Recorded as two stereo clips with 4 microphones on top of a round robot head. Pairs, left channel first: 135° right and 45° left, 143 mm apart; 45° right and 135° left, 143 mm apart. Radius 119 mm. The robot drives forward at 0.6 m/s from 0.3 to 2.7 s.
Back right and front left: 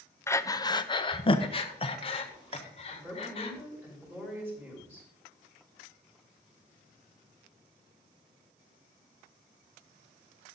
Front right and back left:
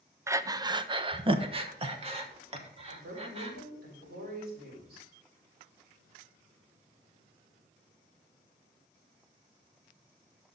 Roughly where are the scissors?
I don't hear scissors.